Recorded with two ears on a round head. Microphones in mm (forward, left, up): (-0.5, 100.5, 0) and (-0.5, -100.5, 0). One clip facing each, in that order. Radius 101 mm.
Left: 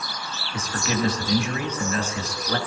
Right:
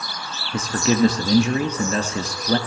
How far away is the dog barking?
I don't hear a dog barking.